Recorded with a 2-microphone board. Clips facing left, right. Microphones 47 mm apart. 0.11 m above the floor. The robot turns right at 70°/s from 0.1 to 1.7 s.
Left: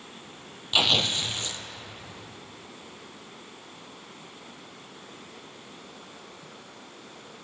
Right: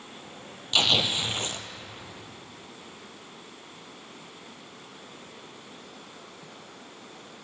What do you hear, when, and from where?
0.7 s tearing paper: 165° left, 0.8 m; by 1.6 s 130° right, 0.8 m